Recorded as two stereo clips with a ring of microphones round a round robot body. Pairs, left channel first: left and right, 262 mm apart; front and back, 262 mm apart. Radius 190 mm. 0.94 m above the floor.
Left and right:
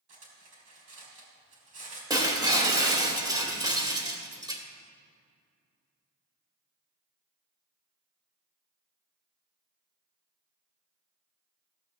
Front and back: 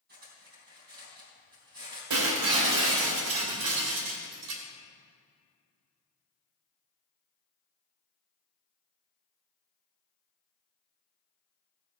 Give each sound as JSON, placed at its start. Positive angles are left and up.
{"t": 0.1, "sound": "cutlery clinking", "azimuth_deg": -115, "distance_m": 4.0}
{"t": 2.1, "sound": "breaking glass", "azimuth_deg": -165, "distance_m": 2.0}